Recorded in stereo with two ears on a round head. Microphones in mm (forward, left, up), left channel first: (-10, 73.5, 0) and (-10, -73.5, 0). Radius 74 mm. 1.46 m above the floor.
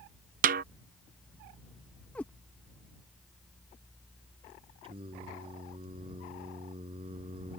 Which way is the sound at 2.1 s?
10° left (ahead or behind).